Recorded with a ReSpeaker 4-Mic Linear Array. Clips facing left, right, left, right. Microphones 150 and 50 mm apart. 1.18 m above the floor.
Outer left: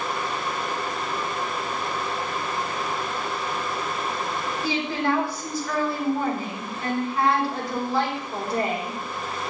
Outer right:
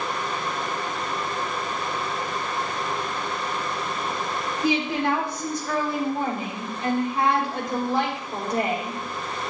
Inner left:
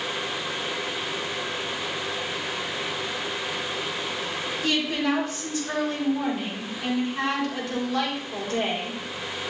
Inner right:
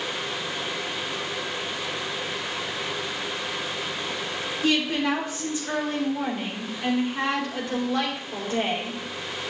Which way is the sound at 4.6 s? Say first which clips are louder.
Outer right 3 dB, inner right 2 dB; 20° right (ahead or behind).